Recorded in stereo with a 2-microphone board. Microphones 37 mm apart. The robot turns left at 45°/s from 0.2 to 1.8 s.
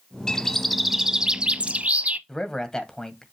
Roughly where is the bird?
Ahead.